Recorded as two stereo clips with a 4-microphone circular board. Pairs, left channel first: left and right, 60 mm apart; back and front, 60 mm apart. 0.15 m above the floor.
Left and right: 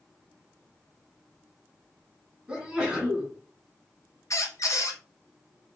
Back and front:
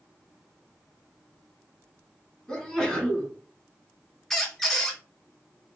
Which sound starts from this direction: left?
A squeak, at 4.3 s.